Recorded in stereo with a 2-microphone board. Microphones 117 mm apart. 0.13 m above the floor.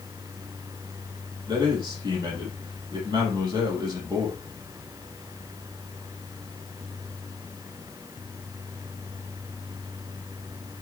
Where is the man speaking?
35° right (ahead or behind), 5 m.